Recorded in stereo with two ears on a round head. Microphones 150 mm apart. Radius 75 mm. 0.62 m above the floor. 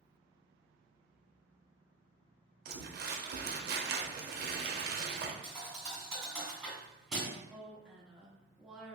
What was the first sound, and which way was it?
Crumpling, 60° right (ahead or behind).